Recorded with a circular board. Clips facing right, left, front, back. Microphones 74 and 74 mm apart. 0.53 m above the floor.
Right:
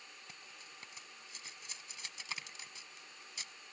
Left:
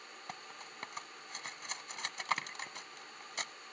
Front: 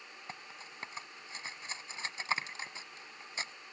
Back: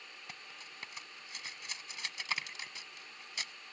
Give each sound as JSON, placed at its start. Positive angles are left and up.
{"t": 0.3, "sound": "cutlery clinking", "azimuth_deg": 60}